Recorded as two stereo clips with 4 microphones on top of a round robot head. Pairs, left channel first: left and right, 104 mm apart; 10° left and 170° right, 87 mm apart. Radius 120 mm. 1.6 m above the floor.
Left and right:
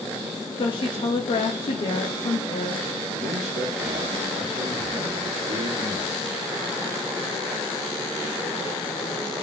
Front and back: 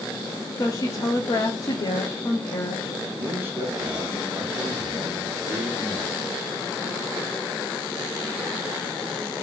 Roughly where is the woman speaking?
Ahead left.